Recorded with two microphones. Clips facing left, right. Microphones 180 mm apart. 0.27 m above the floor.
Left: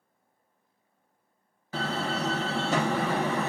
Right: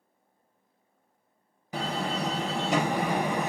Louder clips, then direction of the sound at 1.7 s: Even; 15° right (ahead or behind).